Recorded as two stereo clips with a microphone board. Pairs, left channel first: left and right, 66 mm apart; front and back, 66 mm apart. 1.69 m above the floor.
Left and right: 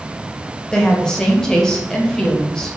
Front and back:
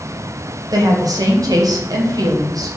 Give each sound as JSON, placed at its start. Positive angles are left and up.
{"t": 0.7, "sound": "a woman speaking", "azimuth_deg": 170, "distance_m": 0.7}